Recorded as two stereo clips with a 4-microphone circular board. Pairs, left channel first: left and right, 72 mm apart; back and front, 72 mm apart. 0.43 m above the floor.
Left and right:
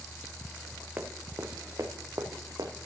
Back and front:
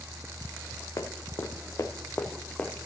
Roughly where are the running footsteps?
Behind right.